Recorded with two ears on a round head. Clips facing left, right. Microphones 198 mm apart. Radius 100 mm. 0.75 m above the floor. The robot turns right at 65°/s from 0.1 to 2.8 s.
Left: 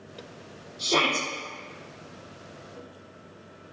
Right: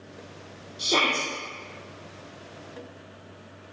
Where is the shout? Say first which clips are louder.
Left 1 dB; 15° right, 1.6 m; by 1.3 s 15° left, 1.6 m.